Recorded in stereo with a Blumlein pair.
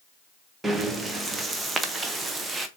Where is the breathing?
10° right, 0.8 m.